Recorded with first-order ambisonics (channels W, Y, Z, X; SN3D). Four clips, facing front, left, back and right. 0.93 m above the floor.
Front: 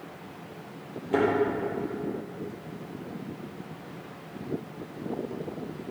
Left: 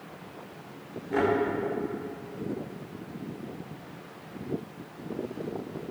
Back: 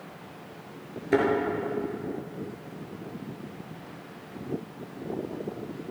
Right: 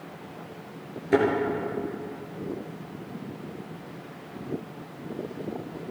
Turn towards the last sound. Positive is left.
turn(degrees=-140)